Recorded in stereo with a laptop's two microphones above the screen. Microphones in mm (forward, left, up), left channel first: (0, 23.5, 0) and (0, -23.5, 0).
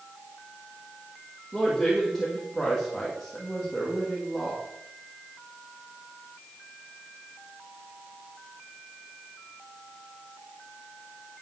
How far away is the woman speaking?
About 1.8 m.